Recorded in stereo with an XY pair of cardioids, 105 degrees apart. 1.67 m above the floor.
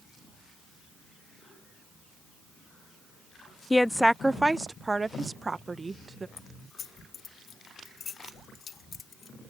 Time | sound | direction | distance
3.7 | a woman speaking | 15° left | ?
6.4 | keys jangling | 45° left | ?